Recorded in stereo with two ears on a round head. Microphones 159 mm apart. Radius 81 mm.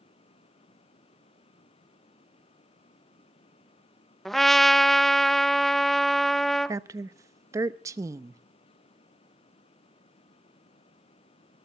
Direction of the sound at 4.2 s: Centre (ahead or behind).